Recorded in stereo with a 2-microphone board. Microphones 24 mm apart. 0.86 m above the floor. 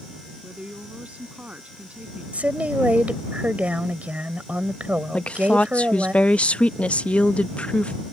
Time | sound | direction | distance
0.4 | a woman speaking | 65° right (ahead or behind) | ?
2.3 | a woman speaking | 80° right | ?
5.1 | a woman speaking | 60° left (ahead or behind) | ?